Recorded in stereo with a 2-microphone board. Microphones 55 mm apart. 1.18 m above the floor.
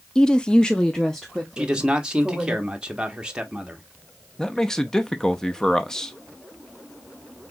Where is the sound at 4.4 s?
10° left (ahead or behind), 0.7 m.